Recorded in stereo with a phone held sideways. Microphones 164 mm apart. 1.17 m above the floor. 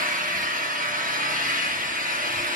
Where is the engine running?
55° right (ahead or behind), 1.0 m.